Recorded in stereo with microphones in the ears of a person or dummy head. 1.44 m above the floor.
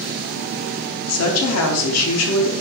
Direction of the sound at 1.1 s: 80° left.